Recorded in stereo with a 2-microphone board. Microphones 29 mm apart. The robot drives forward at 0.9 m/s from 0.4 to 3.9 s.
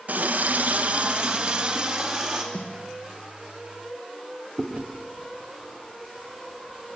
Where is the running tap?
65° right (ahead or behind), 0.8 m; by 2.4 s 20° right (ahead or behind), 2 m.